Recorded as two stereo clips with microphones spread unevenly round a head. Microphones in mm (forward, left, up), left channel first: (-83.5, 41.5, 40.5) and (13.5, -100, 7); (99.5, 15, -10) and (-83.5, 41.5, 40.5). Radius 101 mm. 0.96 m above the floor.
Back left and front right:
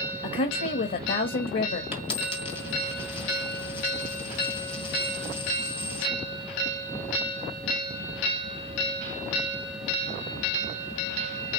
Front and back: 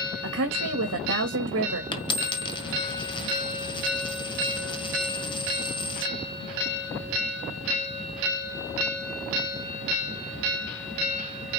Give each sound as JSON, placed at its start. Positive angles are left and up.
{"t": 0.2, "sound": "a woman speaking", "azimuth_deg": 150, "distance_m": 1.5}
{"t": 1.9, "sound": "a dropped coin", "azimuth_deg": 60, "distance_m": 1.7}